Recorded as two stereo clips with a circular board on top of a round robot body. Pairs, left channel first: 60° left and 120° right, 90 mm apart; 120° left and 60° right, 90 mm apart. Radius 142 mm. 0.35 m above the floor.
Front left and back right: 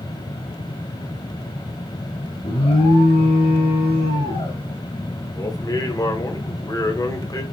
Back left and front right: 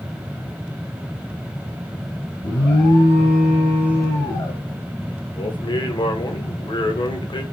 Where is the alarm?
70° left, 4.5 m.